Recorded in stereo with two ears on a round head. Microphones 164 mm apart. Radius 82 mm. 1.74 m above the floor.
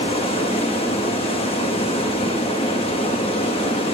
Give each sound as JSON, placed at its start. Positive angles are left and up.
{"t": 0.0, "sound": "running water", "side_deg": 30, "distance_m": 1.3}